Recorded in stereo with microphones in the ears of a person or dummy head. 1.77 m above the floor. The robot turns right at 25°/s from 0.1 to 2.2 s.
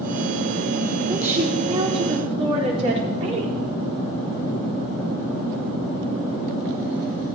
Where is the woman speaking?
10° right (ahead or behind), 4.5 m; by 3.5 s 35° right (ahead or behind), 4.5 m.